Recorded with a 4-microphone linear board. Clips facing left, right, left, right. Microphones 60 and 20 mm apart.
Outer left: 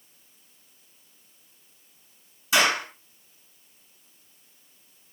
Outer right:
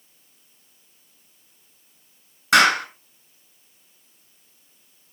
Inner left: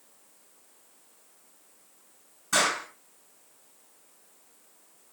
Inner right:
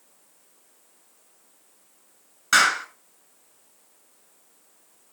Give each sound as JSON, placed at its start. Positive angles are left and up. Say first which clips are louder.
{"t": 2.5, "sound": "a clap", "louder": "outer right 6 dB, inner right 7 dB", "side_deg": -60, "distance_m": 6.0}